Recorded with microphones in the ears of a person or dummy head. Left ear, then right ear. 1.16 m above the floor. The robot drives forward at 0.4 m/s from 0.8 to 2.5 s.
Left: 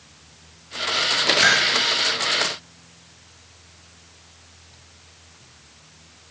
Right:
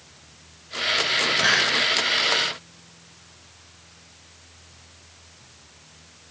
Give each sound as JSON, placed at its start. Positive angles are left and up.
{"t": 1.4, "sound": "a hiss", "side_deg": 70, "distance_m": 5.0}